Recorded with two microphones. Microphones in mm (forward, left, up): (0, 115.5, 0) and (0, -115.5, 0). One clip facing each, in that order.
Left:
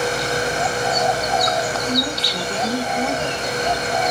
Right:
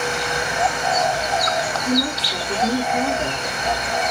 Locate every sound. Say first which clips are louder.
1.9 s a woman speaking: right 2 dB; 45° right (ahead or behind), 3 m